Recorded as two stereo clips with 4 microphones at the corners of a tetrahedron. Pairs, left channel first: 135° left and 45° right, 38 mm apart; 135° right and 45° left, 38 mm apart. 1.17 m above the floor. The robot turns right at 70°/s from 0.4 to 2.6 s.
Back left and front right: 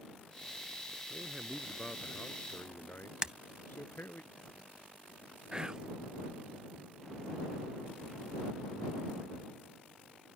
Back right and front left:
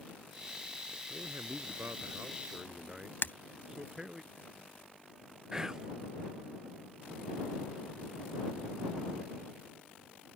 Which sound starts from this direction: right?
Breaking glass, at 3.2 s.